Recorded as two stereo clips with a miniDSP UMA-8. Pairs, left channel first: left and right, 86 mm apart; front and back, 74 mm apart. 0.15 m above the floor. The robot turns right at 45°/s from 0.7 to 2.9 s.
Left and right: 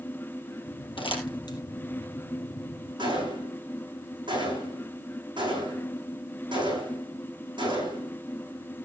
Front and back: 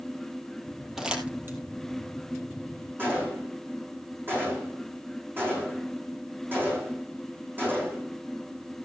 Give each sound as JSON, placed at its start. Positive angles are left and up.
{"t": 1.0, "sound": "crumpling", "azimuth_deg": 95, "distance_m": 3.0}
{"t": 3.0, "sound": "a gunshot", "azimuth_deg": -120, "distance_m": 8.5}